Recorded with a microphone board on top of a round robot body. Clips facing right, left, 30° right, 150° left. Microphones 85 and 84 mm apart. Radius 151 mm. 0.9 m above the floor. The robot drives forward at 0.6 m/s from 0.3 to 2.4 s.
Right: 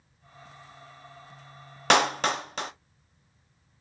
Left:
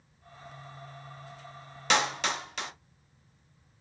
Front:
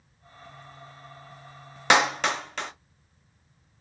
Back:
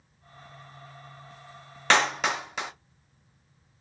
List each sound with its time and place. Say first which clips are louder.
1.9 s a clap: right 5 dB, front 2 dB; 105° right, 0.6 m; by 2.7 s 135° right, 0.7 m